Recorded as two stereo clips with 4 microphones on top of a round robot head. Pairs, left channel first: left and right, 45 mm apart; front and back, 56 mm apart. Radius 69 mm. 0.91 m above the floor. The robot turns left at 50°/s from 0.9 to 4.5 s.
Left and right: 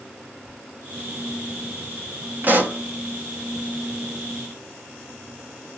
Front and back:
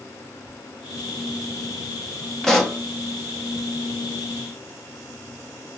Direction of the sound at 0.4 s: 65° left.